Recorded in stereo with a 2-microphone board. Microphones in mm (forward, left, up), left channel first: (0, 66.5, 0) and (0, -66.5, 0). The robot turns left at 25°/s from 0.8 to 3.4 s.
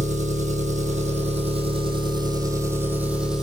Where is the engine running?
110° right, 1.8 m; by 3.4 s 175° right, 1.8 m.